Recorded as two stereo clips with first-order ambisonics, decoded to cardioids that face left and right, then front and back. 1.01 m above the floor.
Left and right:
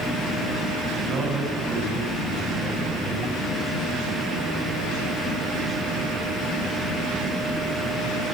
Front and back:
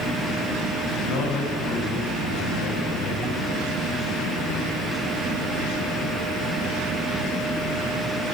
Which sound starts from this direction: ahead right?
A man speaking, at 1.0 s.